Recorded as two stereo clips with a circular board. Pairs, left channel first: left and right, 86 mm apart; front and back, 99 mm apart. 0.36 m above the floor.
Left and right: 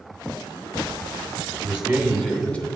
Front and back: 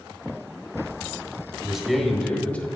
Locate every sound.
1.6 s a man speaking: 105° right, 1.1 m; by 2.7 s 50° left, 1.0 m